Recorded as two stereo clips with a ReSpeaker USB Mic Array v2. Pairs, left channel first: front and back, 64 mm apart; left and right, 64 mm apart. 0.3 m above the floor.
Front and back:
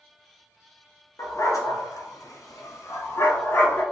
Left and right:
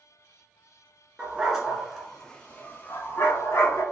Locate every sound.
1.2 s a dog barking: 20° right, 1.1 m; by 3.8 s 55° left, 1.1 m